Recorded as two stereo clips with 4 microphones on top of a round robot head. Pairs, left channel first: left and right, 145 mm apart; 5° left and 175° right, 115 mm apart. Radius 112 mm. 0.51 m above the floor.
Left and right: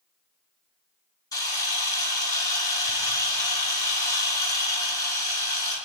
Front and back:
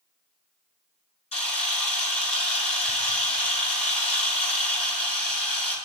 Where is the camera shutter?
25° left, 7 m.